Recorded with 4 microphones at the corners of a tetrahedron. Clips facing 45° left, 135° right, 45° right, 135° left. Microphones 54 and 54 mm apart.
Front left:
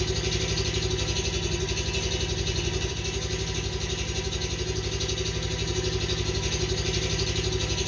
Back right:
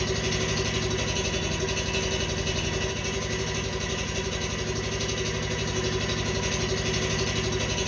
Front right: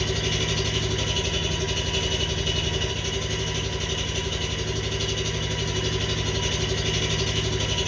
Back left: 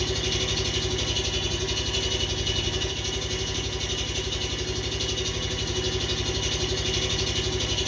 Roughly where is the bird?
No bird in this recording.